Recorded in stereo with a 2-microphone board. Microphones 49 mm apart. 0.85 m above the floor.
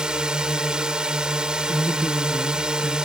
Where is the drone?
20° right (ahead or behind).